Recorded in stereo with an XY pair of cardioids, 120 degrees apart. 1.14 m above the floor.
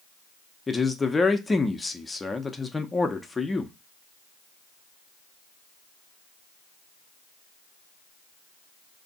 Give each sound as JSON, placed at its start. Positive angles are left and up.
{"t": 0.7, "sound": "a man speaking", "azimuth_deg": 15, "distance_m": 0.6}